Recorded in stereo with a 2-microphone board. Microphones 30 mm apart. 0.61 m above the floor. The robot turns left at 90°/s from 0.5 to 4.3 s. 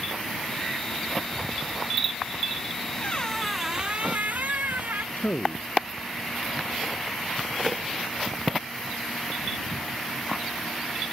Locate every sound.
3.0 s a squeak: 45° left; by 5.1 s 70° right
5.2 s a man speaking: 75° left (ahead or behind)